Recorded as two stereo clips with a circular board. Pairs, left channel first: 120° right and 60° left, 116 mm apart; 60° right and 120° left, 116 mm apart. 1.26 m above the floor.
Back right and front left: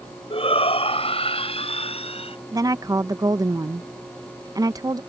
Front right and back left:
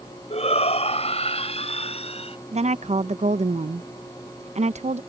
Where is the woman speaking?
115° left.